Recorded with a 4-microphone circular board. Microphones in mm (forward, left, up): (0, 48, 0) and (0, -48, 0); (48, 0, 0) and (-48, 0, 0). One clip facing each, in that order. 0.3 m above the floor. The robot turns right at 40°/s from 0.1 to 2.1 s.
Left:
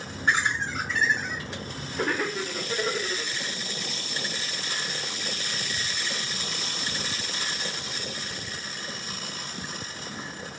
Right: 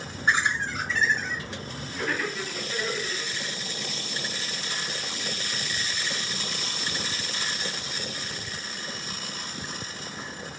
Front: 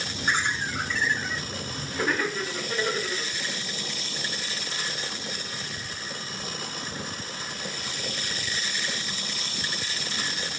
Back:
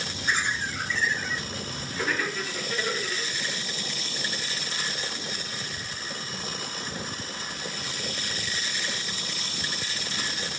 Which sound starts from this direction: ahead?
Laughter, at 0.3 s.